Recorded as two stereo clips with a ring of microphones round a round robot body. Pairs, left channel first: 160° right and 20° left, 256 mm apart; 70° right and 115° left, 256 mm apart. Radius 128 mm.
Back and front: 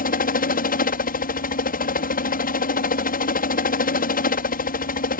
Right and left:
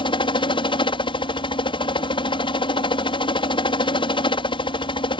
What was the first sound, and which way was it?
A helicopter, 125° right.